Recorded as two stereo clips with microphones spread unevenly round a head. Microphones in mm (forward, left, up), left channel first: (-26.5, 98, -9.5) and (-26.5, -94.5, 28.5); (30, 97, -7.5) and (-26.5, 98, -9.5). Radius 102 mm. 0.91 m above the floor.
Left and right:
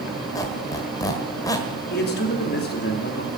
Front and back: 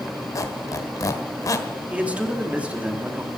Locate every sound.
0.3 s a squeak: 15° left, 1.4 m
1.9 s a man speaking: 115° left, 2.5 m